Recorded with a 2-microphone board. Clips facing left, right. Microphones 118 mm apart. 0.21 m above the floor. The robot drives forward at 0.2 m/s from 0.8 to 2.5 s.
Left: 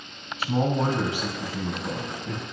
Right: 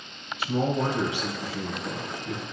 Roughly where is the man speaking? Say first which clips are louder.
Left 1 dB; left.